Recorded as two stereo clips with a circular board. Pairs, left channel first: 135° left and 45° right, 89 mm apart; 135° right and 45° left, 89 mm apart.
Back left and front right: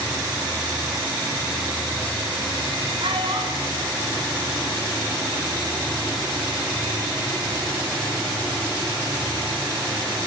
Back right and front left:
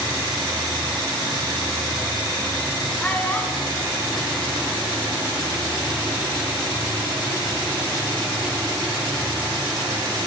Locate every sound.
3.0 s a child speaking: 60° right, 8 m; by 5.3 s 70° right, 7.5 m